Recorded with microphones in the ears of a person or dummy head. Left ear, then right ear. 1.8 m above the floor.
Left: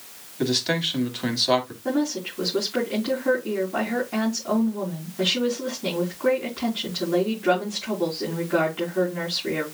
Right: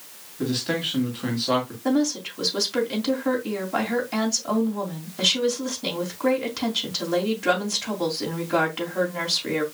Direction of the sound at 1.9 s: 85° right.